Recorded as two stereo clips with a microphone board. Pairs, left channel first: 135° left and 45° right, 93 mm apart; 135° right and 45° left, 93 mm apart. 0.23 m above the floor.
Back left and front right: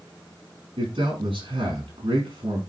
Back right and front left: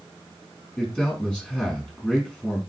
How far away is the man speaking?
About 5 m.